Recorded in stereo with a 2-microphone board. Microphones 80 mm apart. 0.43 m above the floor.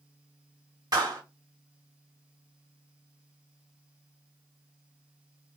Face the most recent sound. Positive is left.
turn(degrees=-50)  # may be behind; listen again after turning